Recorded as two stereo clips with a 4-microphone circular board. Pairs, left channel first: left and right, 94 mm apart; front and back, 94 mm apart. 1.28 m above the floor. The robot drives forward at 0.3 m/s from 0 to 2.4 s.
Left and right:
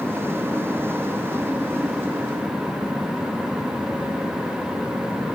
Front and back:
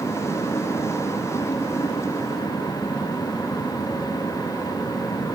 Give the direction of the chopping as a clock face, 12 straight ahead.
I don't hear chopping.